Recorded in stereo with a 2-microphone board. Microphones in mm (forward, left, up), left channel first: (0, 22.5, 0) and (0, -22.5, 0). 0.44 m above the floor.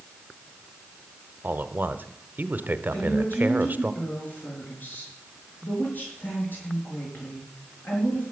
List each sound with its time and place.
1.4 s a man speaking: 40° right (ahead or behind), 0.9 m
2.9 s a woman speaking: 40° left (ahead or behind), 6.5 m